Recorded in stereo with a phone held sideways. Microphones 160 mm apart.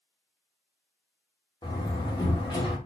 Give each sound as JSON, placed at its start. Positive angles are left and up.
{"t": 1.6, "sound": "a door slam", "side_deg": 30, "distance_m": 1.7}